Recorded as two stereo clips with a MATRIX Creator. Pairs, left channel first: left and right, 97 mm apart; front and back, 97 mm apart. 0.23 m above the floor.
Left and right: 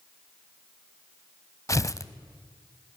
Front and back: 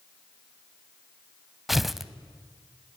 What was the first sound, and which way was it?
Tearing paper, 95° left.